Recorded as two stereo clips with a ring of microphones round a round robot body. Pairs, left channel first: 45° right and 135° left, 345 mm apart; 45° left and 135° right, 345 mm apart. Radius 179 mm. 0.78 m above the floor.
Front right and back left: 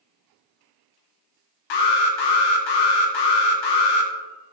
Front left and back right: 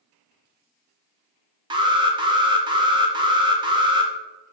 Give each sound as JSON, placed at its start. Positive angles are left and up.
{"t": 1.7, "sound": "an alarm", "azimuth_deg": -60, "distance_m": 1.0}